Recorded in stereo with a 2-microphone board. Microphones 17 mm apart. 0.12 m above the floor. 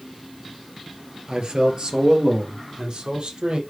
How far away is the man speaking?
About 1.7 m.